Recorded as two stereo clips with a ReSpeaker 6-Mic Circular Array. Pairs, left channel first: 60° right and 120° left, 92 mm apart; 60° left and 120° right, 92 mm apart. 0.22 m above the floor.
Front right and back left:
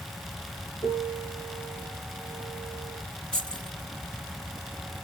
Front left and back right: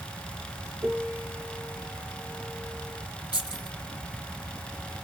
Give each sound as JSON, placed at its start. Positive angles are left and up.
{"t": 0.8, "sound": "a piano", "azimuth_deg": -45, "distance_m": 2.0}
{"t": 3.3, "sound": "keys jangling", "azimuth_deg": 20, "distance_m": 3.5}